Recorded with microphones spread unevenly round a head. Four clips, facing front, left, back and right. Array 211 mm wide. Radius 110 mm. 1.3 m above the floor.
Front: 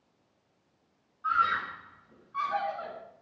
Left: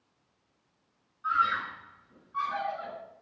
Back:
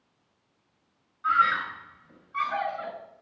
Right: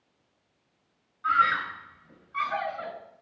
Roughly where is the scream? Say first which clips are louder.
Right 4 dB, back 4 dB; right.